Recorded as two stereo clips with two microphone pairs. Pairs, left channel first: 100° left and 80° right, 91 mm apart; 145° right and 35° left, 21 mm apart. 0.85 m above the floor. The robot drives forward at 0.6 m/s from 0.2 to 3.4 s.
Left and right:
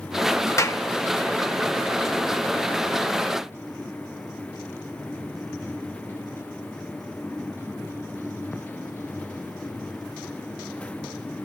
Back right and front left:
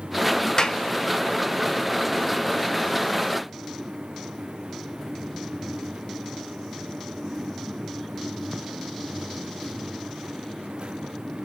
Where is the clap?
155° left, 0.7 m; by 0.8 s 160° left, 0.8 m.